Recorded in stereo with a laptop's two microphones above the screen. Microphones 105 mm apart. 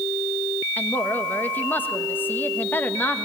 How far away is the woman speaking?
About 1.1 m.